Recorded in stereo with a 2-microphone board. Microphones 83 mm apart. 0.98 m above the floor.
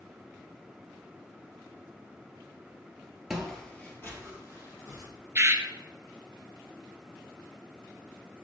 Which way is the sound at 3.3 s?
5° right (ahead or behind).